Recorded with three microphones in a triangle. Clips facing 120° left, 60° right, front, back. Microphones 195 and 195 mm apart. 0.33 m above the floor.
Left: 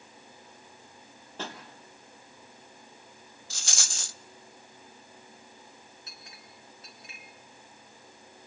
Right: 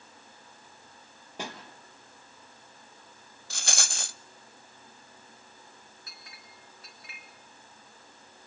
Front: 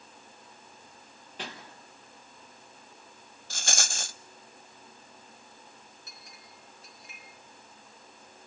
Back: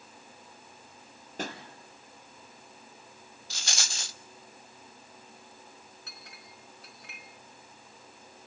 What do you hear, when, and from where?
1.4 s a pop: 135° right, 3.5 m
3.5 s a rattle: 35° right, 0.5 m
6.1 s a clink: 175° right, 4 m